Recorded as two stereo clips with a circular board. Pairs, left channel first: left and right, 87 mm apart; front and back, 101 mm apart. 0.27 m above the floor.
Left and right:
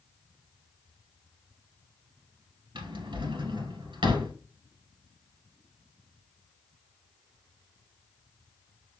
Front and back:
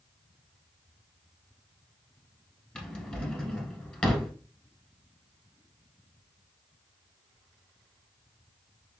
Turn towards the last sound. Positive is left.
turn(degrees=-80)